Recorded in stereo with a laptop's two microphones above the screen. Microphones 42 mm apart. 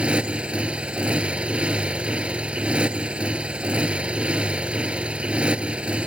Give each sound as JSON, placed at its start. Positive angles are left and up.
{"t": 0.0, "sound": "a motorcycle", "side_deg": -25}